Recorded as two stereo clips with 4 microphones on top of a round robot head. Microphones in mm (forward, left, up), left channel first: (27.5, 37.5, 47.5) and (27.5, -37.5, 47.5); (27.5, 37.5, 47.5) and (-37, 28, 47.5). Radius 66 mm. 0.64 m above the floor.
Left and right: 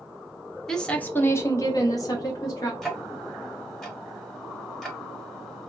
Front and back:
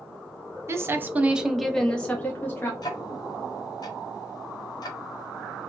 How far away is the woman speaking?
About 0.6 m.